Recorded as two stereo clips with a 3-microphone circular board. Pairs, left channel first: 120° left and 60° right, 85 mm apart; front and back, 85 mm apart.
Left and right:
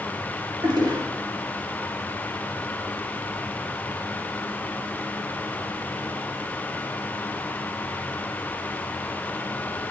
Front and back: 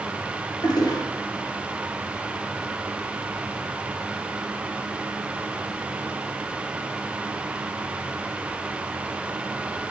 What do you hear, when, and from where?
0.6 s a toilet flushing: 30° right, 3.5 m